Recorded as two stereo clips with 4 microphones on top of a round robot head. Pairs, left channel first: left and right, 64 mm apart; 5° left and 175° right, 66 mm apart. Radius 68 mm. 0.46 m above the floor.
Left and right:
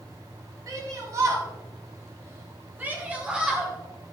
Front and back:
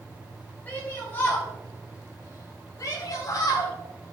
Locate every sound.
0.7 s a shout: 60° right, 4.5 m; by 3.7 s 10° right, 3 m